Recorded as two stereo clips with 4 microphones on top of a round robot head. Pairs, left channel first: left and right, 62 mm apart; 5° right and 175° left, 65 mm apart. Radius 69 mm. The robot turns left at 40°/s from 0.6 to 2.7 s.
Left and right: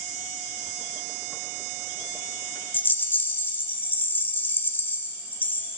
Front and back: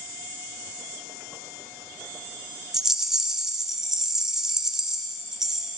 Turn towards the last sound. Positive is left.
turn(degrees=100)